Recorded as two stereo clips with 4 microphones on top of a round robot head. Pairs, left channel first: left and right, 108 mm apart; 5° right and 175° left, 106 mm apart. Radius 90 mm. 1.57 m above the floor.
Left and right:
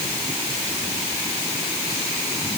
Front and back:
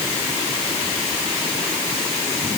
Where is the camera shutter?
No camera shutter in this recording.